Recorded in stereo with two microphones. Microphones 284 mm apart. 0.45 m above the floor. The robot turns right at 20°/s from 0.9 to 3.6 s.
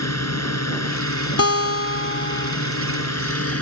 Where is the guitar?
60° left (ahead or behind); by 2.5 s 35° left (ahead or behind).